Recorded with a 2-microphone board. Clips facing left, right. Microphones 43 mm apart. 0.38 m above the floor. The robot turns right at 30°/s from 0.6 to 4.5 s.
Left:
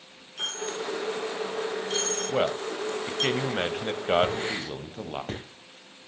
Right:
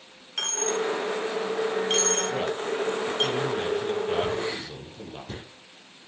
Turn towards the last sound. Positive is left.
turn(degrees=70)  # may be behind; listen again after turning